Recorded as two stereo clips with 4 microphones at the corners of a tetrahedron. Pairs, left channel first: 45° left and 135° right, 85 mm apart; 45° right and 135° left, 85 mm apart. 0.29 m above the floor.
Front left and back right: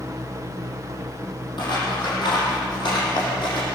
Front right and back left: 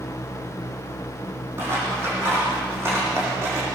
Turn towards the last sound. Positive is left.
turn(degrees=70)